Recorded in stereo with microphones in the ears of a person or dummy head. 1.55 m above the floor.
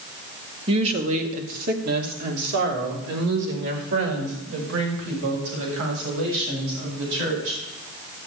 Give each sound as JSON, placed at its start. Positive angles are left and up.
{"t": 0.7, "sound": "a woman speaking", "side_deg": -35, "distance_m": 2.0}